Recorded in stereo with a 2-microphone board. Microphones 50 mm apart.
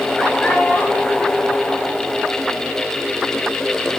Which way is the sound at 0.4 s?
15° left (ahead or behind).